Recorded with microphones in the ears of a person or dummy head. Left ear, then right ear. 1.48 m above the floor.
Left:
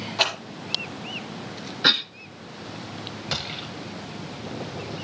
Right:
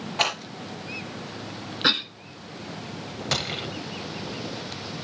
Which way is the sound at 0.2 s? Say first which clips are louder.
Left 1 dB; 5° left (ahead or behind).